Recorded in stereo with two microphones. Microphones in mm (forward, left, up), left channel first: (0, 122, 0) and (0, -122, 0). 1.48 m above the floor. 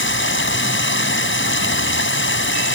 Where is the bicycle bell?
I don't hear a bicycle bell.